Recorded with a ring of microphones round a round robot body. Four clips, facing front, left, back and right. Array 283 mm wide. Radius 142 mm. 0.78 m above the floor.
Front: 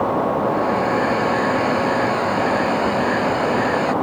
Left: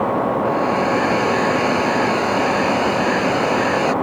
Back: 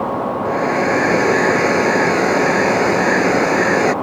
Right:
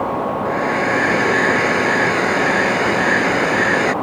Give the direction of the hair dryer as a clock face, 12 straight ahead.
5 o'clock.